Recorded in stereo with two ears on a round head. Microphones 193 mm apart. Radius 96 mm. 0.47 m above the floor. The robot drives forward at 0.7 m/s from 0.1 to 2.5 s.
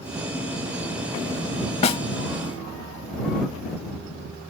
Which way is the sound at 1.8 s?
30° left (ahead or behind).